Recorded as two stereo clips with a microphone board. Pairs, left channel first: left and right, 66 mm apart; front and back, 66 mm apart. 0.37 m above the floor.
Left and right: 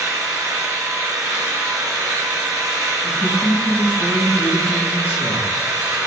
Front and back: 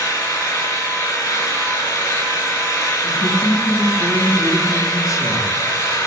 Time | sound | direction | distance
0.0 | an engine running | 15° right | 4.5 m
3.0 | a man speaking | 30° left | 4.5 m